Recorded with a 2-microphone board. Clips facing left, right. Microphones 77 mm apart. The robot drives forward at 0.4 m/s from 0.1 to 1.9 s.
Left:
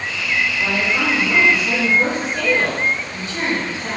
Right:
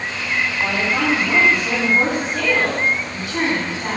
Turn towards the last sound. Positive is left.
turn(degrees=-75)  # may be behind; listen again after turning